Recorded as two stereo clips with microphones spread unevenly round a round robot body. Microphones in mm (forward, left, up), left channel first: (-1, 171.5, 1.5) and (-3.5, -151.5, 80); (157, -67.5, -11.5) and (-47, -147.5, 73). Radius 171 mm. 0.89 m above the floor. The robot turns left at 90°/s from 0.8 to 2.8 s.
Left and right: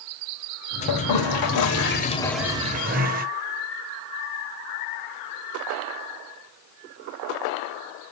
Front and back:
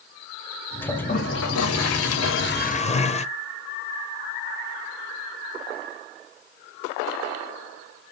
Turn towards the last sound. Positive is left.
turn(degrees=-50)